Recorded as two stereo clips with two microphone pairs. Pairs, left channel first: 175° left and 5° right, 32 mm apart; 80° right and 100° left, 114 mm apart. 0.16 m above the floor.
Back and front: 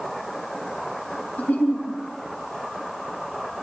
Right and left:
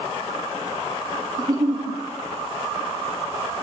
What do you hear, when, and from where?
1.4 s a giggle: 160° left, 7 m